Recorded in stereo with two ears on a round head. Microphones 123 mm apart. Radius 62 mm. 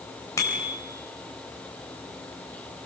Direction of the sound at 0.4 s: 25° left (ahead or behind).